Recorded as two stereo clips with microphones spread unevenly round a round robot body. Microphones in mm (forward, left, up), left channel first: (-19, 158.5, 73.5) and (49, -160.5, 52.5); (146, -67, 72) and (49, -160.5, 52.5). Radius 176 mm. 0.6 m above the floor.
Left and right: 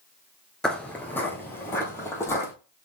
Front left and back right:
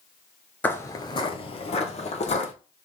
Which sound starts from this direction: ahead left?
Footsteps, at 0.6 s.